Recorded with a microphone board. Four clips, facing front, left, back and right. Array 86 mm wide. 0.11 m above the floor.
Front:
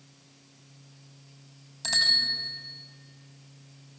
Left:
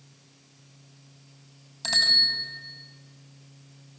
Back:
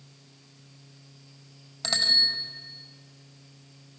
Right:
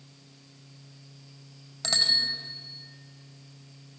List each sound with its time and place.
1.8 s a bicycle bell: 135° right, 4.5 m